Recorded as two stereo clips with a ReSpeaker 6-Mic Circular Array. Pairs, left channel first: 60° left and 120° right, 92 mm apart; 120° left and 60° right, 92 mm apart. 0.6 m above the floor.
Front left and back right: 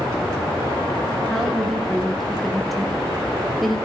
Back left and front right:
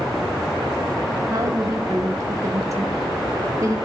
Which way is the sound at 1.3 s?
25° right.